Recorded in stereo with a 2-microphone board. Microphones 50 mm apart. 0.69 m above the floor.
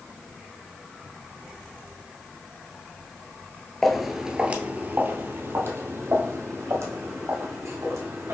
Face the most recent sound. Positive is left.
turn(degrees=-75)  # may be behind; listen again after turning